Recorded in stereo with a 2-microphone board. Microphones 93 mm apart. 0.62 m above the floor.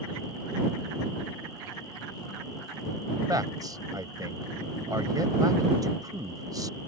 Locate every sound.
3.3 s a man speaking: 40° right (ahead or behind)